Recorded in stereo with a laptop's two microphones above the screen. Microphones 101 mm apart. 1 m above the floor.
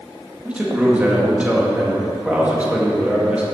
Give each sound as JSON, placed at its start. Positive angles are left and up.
{"t": 0.5, "sound": "a man speaking", "side_deg": -15, "distance_m": 1.7}